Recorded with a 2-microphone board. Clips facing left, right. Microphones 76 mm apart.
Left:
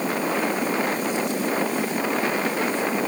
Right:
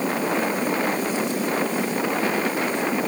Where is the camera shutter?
No camera shutter in this recording.